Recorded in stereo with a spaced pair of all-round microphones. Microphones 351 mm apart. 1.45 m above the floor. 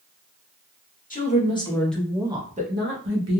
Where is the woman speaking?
25° left (ahead or behind), 1.1 m; by 3.4 s 50° right (ahead or behind), 0.9 m.